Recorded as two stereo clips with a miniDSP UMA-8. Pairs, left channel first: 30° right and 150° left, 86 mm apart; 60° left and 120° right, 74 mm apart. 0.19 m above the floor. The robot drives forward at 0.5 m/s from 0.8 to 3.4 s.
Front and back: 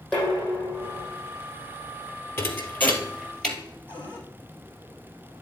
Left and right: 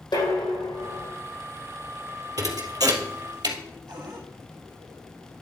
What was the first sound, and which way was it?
Dishes clattering, 60° left.